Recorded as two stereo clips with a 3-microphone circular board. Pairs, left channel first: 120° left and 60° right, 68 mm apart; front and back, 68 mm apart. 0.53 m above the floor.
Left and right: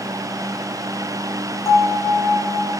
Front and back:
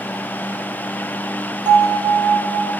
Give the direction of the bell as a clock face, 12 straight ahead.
6 o'clock.